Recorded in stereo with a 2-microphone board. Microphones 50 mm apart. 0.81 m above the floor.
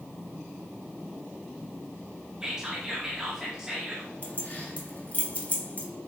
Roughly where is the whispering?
Centre.